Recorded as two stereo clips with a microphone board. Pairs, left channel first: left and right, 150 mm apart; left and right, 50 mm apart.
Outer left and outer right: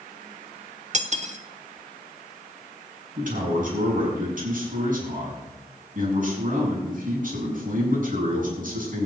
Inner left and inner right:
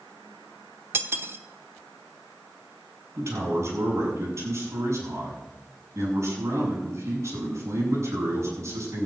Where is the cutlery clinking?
50° right (ahead or behind), 1.1 m.